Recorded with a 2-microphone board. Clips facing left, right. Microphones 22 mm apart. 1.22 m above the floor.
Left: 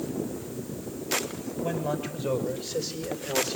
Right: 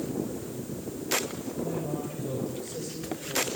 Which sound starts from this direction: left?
A man speaking, at 1.6 s.